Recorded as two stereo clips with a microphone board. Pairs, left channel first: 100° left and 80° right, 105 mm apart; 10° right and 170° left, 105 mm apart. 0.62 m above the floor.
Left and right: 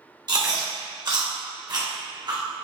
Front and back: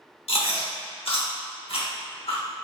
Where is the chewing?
35° right, 1.0 m.